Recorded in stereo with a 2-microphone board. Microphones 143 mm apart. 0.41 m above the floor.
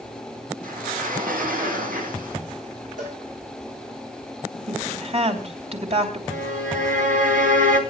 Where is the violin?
70° right (ahead or behind), 3.5 m.